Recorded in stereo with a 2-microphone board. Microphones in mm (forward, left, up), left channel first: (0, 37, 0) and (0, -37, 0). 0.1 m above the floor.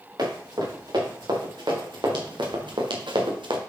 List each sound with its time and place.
0.2 s running footsteps: 65° right (ahead or behind), 5.5 m; by 3.6 s 80° right, 2 m